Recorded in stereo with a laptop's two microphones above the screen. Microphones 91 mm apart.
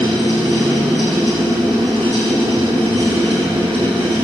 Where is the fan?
80° right, 10 m.